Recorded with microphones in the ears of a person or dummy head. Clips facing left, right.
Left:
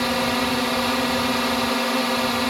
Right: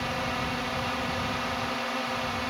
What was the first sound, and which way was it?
A drone, 70° left (ahead or behind).